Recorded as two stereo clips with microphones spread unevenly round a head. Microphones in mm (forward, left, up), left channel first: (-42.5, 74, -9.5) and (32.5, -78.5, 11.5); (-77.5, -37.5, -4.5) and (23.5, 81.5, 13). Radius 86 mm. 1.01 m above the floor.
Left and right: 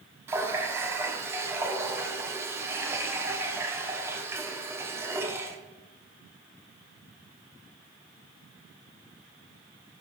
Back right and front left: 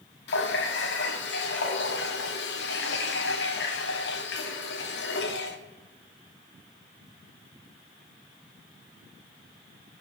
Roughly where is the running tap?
Behind right.